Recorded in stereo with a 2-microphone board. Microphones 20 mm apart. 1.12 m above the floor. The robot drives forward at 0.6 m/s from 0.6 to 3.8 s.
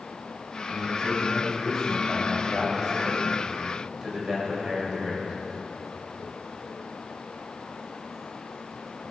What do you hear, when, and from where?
0.7 s a man speaking: 25° right (ahead or behind), 7.5 m; by 5.4 s 35° right (ahead or behind), 6 m